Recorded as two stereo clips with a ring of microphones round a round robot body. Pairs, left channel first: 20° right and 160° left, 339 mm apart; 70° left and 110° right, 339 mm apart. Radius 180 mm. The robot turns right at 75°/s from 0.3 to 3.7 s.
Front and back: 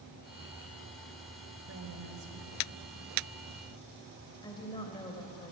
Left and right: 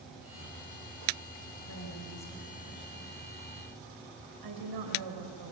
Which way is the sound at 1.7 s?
110° left.